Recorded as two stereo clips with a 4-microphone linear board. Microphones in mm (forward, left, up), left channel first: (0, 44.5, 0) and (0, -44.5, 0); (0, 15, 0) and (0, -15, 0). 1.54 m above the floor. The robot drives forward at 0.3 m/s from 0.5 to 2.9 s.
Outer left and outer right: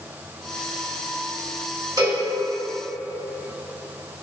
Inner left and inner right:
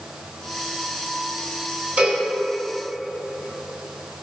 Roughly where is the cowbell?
Right.